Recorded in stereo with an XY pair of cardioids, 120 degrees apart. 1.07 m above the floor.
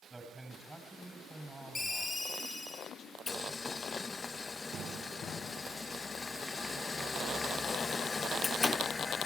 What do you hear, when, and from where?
0.1 s a man speaking: 10° right, 7 m
1.8 s a ringtone: 20° left, 2.5 m
3.3 s boiling: 25° left, 0.6 m